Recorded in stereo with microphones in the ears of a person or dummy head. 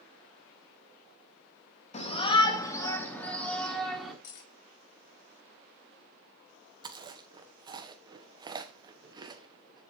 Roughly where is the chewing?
Right.